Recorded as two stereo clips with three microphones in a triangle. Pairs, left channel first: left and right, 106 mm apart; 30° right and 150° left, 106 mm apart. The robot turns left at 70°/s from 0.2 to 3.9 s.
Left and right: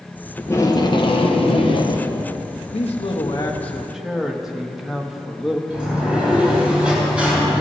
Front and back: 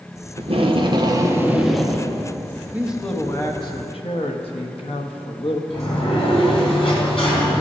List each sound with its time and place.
0.4 s tape being pulled: 160° left, 1.0 m; by 2.1 s 35° left, 1.0 m
2.7 s a man speaking: 80° left, 1.2 m; by 5.6 s 5° right, 1.2 m
5.7 s a sliding door: 10° right, 3 m